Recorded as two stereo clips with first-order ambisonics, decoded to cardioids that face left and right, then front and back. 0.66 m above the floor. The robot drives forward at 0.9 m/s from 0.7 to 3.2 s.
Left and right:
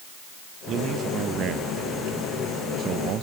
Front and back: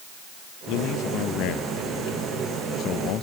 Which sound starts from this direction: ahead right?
A man speaking, at 0.7 s.